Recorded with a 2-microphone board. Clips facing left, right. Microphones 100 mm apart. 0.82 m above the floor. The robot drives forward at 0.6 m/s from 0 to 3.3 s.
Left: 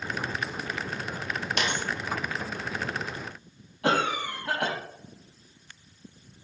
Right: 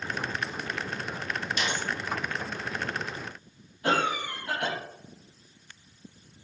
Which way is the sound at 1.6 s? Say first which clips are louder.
Left 3 dB; 65° left (ahead or behind).